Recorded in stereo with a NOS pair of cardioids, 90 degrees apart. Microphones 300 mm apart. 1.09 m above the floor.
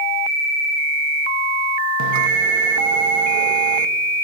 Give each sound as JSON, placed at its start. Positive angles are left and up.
{"t": 2.0, "sound": "a bell", "azimuth_deg": -65, "distance_m": 1.0}